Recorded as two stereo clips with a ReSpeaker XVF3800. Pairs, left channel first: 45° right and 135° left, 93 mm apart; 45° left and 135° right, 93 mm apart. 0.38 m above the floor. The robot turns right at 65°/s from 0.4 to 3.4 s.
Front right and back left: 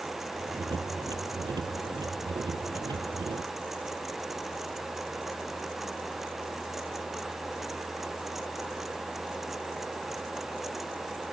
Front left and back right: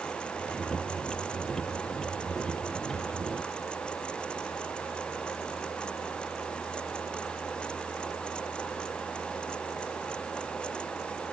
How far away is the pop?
No pop in this recording.